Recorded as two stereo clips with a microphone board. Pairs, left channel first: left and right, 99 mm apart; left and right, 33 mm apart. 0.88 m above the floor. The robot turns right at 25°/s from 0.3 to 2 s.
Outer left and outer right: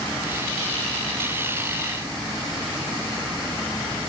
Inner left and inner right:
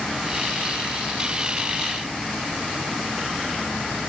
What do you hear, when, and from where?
Only background noise.